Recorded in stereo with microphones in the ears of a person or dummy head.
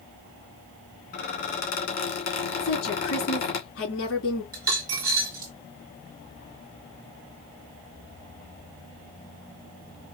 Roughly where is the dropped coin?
Right.